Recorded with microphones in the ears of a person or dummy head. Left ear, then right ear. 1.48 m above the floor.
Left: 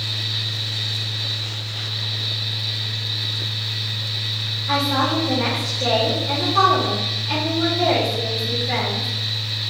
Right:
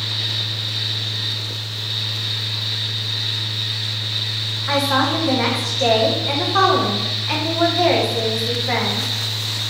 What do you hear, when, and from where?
0.0 s a fan: 65° right (ahead or behind), 1.9 m
4.7 s a woman speaking: 30° right (ahead or behind), 1.0 m